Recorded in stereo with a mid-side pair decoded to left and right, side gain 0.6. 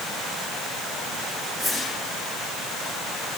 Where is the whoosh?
25° left, 4 m.